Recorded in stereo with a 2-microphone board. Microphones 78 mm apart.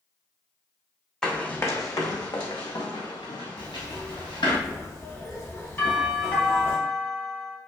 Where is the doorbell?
20° left (ahead or behind), 1.7 m.